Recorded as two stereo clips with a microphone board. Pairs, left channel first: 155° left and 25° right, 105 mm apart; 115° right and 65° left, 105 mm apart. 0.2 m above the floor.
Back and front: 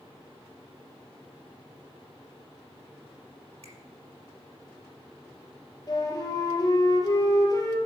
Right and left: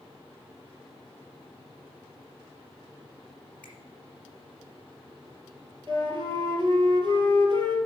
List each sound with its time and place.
3.6 s a finger snap: 35° right, 4.5 m
5.9 s a flute: 100° left, 2.5 m